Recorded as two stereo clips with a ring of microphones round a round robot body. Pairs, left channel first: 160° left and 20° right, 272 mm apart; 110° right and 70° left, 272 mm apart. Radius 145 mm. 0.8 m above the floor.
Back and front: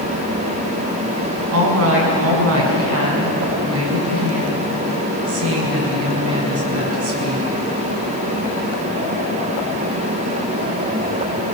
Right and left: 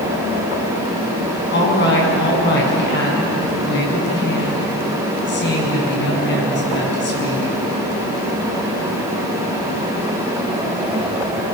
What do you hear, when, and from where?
1.5 s a woman speaking: 60° right, 6.5 m